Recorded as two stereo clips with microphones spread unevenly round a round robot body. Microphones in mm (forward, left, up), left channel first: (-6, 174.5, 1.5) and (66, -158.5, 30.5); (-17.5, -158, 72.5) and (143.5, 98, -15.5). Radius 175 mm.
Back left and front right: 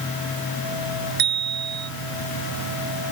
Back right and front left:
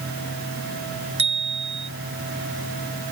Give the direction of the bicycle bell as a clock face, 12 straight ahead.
1 o'clock.